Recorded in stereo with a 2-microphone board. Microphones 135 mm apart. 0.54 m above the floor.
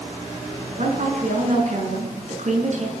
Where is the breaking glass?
No breaking glass in this recording.